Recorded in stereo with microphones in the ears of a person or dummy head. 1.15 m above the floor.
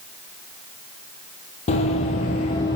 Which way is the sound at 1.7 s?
35° left (ahead or behind).